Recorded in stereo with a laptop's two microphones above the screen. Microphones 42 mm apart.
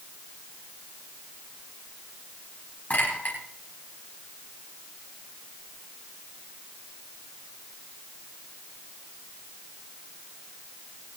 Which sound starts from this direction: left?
A clink, at 2.9 s.